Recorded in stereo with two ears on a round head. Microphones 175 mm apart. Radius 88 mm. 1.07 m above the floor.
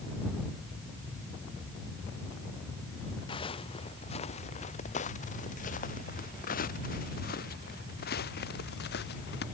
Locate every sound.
3.3 s footsteps: 25° left (ahead or behind); by 9.4 s 55° left (ahead or behind)